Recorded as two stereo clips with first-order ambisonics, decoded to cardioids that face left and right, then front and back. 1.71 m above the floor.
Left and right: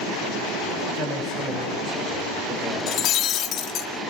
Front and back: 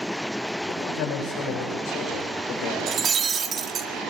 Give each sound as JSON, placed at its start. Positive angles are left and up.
{"t": 0.7, "sound": "a man speaking", "azimuth_deg": 25, "distance_m": 9.5}
{"t": 2.9, "sound": "breaking glass", "azimuth_deg": 120, "distance_m": 1.8}